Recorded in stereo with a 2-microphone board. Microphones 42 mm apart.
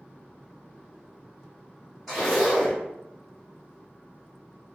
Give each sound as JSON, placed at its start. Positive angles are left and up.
{"t": 2.1, "sound": "a zipper", "side_deg": -5, "distance_m": 1.9}